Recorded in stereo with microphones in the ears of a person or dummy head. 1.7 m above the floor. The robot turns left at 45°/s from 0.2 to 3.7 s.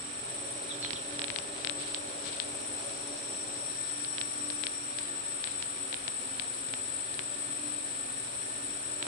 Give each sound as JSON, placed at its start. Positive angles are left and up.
{"t": 0.0, "sound": "an insect", "azimuth_deg": -145, "distance_m": 2.5}